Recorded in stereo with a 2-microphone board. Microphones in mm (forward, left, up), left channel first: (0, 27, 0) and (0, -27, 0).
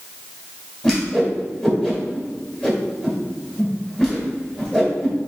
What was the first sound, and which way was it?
A whoosh, 15° left (ahead or behind).